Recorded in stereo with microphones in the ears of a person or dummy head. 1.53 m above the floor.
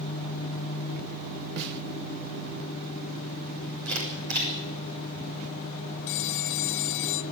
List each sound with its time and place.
1.6 s a snare drum: 65° right (ahead or behind), 1.6 m
3.9 s a camera shutter: 65° right (ahead or behind), 7 m
6.1 s a phone ringing: 70° left (ahead or behind), 1.5 m